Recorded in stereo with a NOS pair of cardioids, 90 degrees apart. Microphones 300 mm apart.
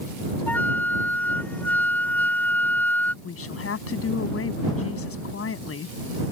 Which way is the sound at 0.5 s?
5° left.